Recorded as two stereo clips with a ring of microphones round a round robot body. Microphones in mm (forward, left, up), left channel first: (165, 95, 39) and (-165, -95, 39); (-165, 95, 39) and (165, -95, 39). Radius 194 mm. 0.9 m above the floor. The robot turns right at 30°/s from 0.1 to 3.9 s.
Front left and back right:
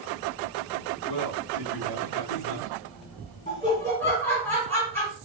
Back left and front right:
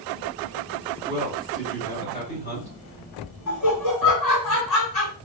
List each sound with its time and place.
1.1 s a man speaking: 45° left, 3 m; by 2.7 s 95° left, 3 m
3.5 s laughter: 100° left, 2.5 m; by 5.1 s 115° left, 2.5 m